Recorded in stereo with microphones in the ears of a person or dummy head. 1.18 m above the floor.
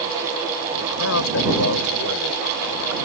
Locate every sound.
0.7 s a man speaking: 85° left; by 3.0 s 75° left (ahead or behind)